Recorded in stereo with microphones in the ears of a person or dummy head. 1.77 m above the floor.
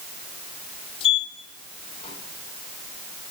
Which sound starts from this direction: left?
A sliding door, at 1.0 s.